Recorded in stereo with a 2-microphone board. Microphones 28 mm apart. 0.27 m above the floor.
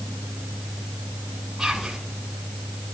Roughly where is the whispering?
Centre.